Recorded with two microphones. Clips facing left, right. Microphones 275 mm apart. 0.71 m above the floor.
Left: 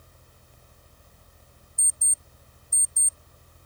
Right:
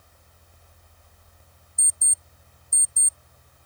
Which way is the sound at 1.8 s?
45° right (ahead or behind).